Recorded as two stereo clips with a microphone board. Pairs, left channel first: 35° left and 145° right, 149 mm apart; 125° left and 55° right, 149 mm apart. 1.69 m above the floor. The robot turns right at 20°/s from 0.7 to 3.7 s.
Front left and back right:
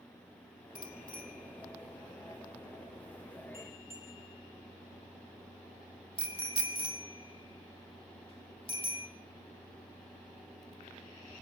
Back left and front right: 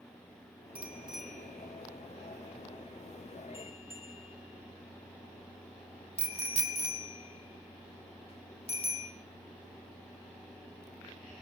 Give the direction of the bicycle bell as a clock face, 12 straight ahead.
11 o'clock.